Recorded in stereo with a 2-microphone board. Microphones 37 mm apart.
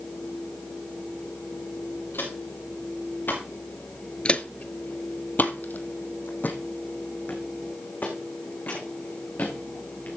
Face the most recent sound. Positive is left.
turn(degrees=55)  # may be behind; listen again after turning